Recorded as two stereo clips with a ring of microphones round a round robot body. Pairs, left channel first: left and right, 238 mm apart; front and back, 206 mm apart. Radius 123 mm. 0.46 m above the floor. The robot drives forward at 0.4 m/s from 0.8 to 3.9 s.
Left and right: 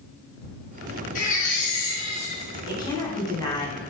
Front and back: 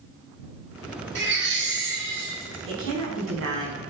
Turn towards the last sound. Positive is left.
turn(degrees=165)